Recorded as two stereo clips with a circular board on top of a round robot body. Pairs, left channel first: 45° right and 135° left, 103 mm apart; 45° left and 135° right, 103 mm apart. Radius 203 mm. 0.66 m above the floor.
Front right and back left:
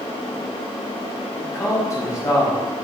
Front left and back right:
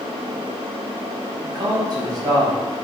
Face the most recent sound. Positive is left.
turn(degrees=-100)